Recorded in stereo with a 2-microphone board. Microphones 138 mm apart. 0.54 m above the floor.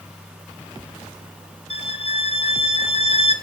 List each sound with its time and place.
1.7 s a violin: 45° left (ahead or behind), 1.2 m